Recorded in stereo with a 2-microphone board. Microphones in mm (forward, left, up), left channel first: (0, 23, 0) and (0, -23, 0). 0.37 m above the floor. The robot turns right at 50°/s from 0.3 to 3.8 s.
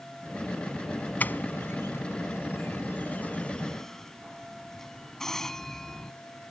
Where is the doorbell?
35° left (ahead or behind); by 6.1 s 10° left (ahead or behind).